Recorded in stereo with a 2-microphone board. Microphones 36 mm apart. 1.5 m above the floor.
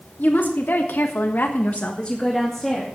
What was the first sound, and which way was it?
A woman speaking, 60° left (ahead or behind).